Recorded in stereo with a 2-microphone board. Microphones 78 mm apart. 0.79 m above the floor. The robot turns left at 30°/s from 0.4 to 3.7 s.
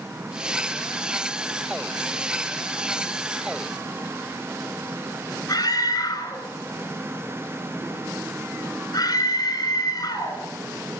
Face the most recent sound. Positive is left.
turn(degrees=60)  # may be behind; listen again after turning